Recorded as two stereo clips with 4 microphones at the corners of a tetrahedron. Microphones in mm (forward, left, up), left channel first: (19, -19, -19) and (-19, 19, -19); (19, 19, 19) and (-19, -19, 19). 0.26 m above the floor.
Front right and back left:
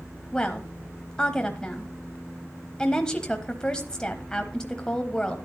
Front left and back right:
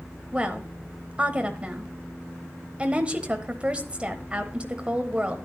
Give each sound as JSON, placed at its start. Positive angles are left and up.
{"t": 0.3, "sound": "a woman speaking", "azimuth_deg": -100, "distance_m": 1.1}